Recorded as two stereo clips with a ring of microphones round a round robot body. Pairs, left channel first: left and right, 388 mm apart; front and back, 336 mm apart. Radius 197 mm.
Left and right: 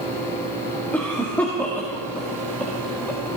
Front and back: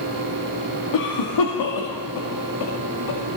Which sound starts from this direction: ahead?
A cough, at 0.9 s.